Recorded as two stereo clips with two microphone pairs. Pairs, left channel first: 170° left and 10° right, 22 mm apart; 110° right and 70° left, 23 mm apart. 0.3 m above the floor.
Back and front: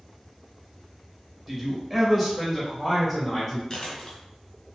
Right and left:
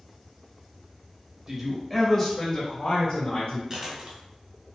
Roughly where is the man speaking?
Ahead left.